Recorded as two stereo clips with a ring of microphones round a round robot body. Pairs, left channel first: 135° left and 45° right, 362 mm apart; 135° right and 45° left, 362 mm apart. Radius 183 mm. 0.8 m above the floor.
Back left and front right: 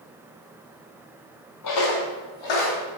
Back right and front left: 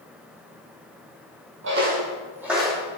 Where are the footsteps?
100° left, 1.5 m; by 2.8 s 140° left, 2.5 m.